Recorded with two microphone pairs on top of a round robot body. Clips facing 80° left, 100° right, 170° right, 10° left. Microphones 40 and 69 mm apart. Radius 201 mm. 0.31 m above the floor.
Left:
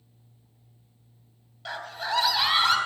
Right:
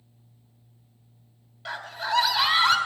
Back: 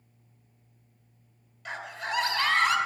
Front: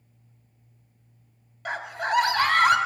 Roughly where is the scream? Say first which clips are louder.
Right 2 dB, front 7 dB; ahead.